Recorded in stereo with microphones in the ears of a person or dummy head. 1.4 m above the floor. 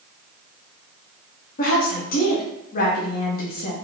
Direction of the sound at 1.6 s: 45° left (ahead or behind).